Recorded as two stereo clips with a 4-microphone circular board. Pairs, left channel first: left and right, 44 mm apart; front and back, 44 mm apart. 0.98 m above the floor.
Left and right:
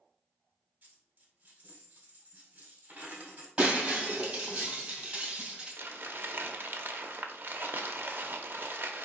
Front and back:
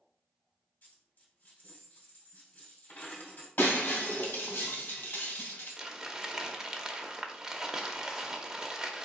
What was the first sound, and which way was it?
A dropped coin, 35° right.